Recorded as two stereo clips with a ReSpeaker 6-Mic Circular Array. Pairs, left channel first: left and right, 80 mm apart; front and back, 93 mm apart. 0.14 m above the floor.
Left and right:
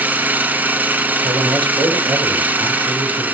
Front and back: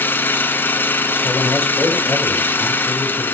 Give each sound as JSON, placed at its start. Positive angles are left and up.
{"t": 0.0, "sound": "an engine running", "azimuth_deg": -45, "distance_m": 1.3}
{"t": 1.2, "sound": "a man speaking", "azimuth_deg": -80, "distance_m": 4.5}